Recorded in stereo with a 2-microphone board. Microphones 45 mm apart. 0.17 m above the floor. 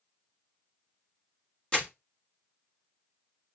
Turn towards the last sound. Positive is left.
turn(degrees=25)  # may be behind; listen again after turning